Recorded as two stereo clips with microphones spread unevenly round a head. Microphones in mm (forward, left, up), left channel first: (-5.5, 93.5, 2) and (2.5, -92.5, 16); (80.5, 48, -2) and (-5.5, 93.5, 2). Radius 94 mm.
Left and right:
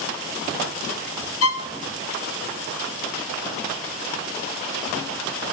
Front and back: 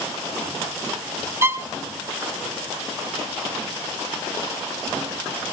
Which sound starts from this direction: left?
A violin, at 1.4 s.